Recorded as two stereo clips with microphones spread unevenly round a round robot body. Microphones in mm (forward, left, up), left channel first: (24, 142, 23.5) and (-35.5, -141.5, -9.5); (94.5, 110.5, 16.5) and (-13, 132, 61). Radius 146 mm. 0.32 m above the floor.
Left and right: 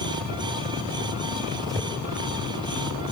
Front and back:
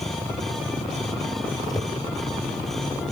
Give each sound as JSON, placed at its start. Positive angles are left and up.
{"t": 1.6, "sound": "a whoosh", "azimuth_deg": -15, "distance_m": 2.5}